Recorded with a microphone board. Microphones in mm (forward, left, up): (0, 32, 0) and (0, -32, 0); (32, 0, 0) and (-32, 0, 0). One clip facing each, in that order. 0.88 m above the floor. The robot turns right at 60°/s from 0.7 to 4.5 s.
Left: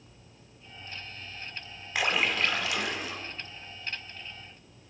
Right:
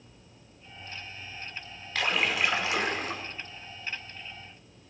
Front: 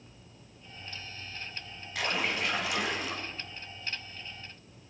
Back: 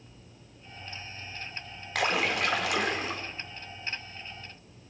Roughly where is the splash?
Behind.